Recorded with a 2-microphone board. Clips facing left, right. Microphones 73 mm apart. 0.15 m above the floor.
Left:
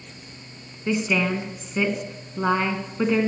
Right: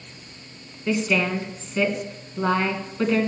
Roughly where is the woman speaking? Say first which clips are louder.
Even; centre.